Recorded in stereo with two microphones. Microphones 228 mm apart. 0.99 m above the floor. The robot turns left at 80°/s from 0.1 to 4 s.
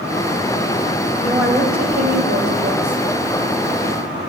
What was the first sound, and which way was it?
A woman speaking, straight ahead.